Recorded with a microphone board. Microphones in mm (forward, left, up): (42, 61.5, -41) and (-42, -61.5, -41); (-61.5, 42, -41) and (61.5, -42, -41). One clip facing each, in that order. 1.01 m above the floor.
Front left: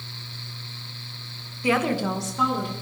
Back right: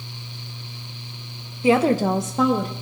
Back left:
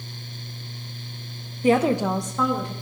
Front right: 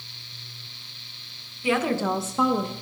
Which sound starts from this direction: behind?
A woman speaking, at 1.6 s.